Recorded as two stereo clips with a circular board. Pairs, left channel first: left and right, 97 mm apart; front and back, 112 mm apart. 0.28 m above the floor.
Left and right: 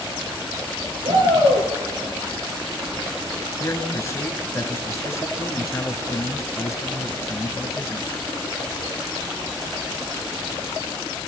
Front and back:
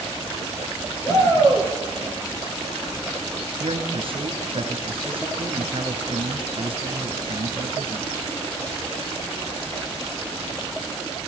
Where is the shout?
60° right, 6.5 m.